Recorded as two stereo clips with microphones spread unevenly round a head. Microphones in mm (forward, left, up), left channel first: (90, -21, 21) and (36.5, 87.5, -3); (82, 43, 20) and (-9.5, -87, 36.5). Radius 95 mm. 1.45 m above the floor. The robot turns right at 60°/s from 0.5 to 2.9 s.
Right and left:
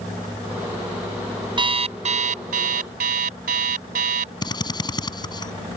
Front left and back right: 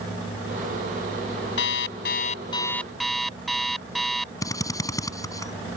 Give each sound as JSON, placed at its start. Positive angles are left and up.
{"t": 1.6, "sound": "an alarm clock", "azimuth_deg": 65}
{"t": 4.4, "sound": "a drill", "azimuth_deg": -15}